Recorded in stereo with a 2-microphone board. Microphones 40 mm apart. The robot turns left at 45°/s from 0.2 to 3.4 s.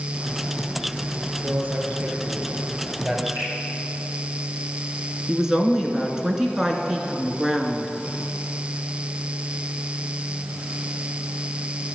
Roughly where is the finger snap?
Right.